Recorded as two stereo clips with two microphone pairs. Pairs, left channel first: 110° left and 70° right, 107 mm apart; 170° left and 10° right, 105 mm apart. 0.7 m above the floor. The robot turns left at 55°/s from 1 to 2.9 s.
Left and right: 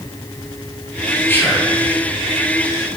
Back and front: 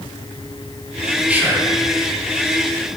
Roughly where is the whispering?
Ahead left.